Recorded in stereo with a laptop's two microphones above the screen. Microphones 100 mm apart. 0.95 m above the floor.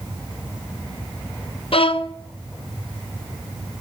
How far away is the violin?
About 0.6 m.